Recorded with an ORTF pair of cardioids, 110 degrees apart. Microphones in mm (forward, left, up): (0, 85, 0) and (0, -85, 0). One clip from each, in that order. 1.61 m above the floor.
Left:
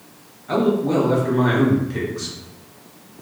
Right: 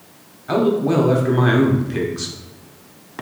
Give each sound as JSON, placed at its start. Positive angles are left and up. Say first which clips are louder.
{"t": 0.5, "sound": "a man speaking", "louder": "right 2 dB", "azimuth_deg": -30, "distance_m": 1.0}